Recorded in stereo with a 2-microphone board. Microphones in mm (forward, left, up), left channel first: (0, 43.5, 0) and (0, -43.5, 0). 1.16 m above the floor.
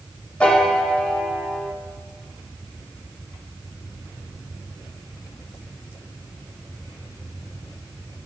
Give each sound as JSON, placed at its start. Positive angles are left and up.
{"t": 0.4, "sound": "a piano", "side_deg": 15, "distance_m": 0.8}